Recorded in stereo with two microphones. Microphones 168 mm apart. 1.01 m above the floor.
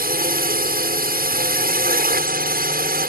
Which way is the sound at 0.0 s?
70° right (ahead or behind).